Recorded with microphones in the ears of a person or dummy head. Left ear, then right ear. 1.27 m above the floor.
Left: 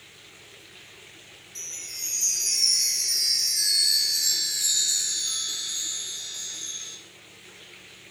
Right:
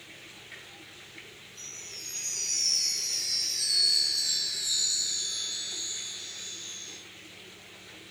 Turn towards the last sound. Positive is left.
turn(degrees=70)  # may be behind; listen again after turning